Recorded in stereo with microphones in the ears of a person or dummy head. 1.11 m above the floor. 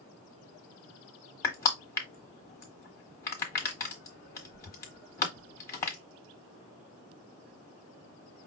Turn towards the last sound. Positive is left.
turn(degrees=15)  # may be behind; listen again after turning